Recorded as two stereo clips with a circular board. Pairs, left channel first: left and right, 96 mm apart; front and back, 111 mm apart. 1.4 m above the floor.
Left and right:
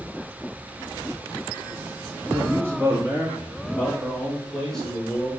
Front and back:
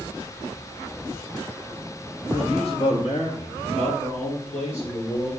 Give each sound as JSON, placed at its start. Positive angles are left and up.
{"t": 2.3, "sound": "a man speaking", "azimuth_deg": -35, "distance_m": 1.8}